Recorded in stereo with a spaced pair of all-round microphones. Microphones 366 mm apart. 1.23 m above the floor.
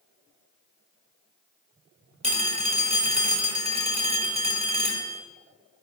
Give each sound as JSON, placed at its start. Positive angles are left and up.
{"t": 2.2, "sound": "a phone ringing", "side_deg": -15, "distance_m": 2.0}